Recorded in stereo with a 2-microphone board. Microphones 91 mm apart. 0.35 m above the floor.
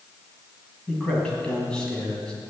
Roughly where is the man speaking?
Centre.